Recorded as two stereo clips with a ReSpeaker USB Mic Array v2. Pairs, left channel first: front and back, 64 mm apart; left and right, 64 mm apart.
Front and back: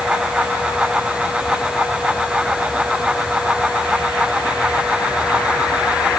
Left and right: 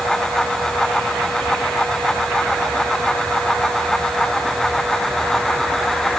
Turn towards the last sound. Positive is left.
No sound to turn to.